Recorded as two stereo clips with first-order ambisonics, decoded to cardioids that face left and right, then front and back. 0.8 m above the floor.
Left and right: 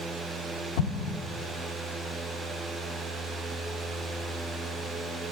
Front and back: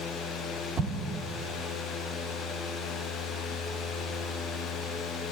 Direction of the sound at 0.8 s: 110° left.